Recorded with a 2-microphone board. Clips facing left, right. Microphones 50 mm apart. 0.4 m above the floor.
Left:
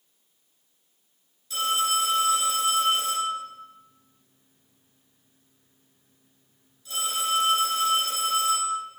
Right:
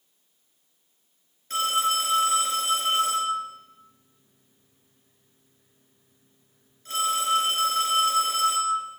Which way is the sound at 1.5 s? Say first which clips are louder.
Right 1 dB; 45° right (ahead or behind).